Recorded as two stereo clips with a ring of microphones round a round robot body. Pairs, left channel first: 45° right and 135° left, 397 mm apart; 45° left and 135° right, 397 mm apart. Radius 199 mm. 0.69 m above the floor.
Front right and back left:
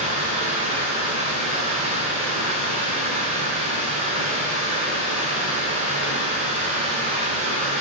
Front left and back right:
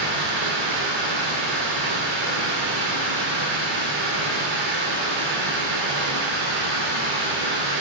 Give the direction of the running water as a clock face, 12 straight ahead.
5 o'clock.